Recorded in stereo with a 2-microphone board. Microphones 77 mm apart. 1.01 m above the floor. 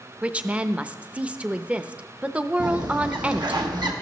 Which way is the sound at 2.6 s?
65° right (ahead or behind).